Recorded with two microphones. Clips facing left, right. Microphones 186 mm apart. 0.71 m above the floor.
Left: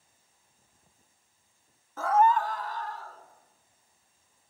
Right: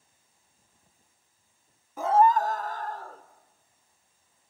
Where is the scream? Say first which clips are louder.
Right 2 dB; 15° right (ahead or behind), 0.5 m; by 3.2 s 50° right (ahead or behind), 2.0 m.